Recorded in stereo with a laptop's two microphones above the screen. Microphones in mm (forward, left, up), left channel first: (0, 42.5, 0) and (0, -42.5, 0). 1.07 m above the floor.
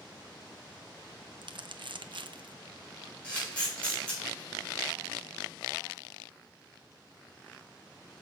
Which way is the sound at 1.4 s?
70° right (ahead or behind).